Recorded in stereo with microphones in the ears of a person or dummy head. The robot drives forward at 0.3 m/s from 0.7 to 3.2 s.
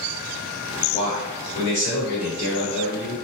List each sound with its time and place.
0.9 s a man speaking: 40° left (ahead or behind), 0.9 m; by 3.1 s 20° left (ahead or behind), 1.5 m